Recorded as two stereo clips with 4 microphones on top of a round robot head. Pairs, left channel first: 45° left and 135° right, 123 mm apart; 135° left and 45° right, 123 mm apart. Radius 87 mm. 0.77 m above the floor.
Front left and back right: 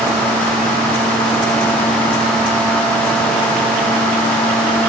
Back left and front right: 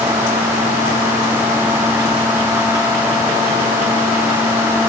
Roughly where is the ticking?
No ticking in this recording.